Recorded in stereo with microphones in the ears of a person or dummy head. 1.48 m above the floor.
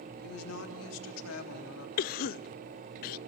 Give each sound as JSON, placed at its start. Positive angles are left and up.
{"t": 0.2, "sound": "a woman speaking", "side_deg": 90, "distance_m": 3.0}
{"t": 2.0, "sound": "a cough", "side_deg": 50, "distance_m": 0.6}